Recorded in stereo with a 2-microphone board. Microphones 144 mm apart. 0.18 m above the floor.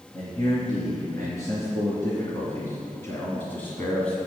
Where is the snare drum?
I don't hear a snare drum.